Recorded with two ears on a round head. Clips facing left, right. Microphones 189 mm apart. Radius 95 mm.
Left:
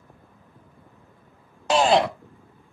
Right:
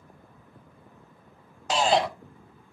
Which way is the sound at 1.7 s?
45° left (ahead or behind).